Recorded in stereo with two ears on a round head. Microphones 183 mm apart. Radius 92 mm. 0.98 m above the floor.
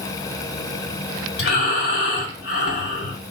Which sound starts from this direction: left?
Breathing, at 1.4 s.